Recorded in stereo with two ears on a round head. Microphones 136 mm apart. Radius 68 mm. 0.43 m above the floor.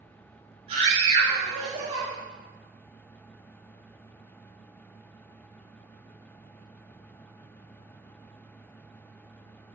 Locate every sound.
0.7 s a scream: 40° right (ahead or behind), 6 m